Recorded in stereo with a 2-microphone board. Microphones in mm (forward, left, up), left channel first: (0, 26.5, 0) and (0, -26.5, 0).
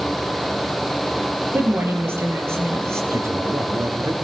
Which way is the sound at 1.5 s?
45° right (ahead or behind).